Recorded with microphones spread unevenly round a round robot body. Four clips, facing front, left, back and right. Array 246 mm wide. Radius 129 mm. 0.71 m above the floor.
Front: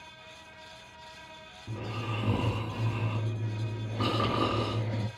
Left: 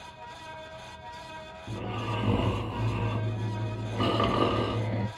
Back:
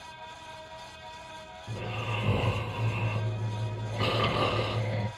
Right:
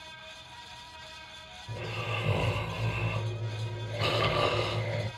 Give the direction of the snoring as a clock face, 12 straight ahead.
10 o'clock.